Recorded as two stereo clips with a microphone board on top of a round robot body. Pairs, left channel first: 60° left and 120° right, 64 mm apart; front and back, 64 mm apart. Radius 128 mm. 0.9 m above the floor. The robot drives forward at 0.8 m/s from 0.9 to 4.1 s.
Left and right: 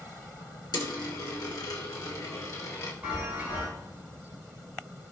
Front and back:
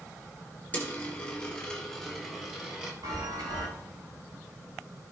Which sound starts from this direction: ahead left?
A dropped coin, at 0.7 s.